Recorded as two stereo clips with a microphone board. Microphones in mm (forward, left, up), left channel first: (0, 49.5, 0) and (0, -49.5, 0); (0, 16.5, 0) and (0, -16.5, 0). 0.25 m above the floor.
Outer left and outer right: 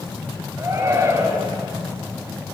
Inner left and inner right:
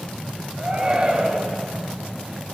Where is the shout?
35° right (ahead or behind), 5 m.